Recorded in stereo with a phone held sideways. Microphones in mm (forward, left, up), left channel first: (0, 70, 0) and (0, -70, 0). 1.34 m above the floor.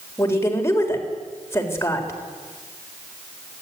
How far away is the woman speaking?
About 4 m.